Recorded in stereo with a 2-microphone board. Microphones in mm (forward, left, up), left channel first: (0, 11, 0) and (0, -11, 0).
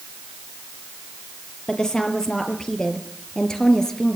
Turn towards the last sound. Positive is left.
turn(degrees=25)  # may be behind; listen again after turning